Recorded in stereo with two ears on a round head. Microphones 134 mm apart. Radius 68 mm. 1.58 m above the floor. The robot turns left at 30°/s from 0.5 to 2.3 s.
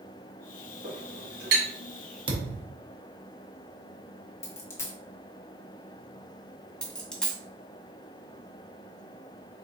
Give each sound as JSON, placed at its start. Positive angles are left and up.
{"t": 0.8, "sound": "a clink", "side_deg": -45, "distance_m": 2.0}
{"t": 2.3, "sound": "a thud", "side_deg": -35, "distance_m": 1.1}
{"t": 4.4, "sound": "a dropped coin", "side_deg": 20, "distance_m": 0.9}
{"t": 6.8, "sound": "a dropped coin", "side_deg": 5, "distance_m": 1.9}